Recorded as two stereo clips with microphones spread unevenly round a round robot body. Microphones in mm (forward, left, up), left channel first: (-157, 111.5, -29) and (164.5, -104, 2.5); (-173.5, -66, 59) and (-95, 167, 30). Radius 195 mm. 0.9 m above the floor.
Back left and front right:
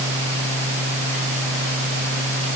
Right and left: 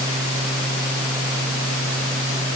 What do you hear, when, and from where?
Only background noise.